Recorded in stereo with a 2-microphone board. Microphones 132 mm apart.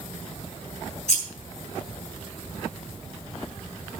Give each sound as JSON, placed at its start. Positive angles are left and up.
{"t": 1.1, "sound": "scissors", "side_deg": 65, "distance_m": 5.0}